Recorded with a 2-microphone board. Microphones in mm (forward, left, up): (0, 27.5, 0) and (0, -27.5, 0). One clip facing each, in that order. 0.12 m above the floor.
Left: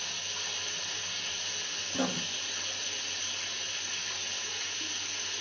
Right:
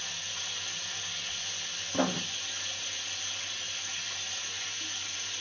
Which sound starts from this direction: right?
Writing, at 1.9 s.